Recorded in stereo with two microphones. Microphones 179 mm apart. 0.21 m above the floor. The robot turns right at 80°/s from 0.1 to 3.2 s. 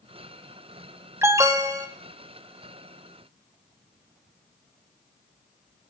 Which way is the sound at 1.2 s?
15° right (ahead or behind).